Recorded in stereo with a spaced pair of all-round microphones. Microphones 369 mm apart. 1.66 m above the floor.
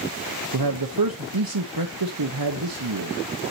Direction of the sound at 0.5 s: 70° right (ahead or behind).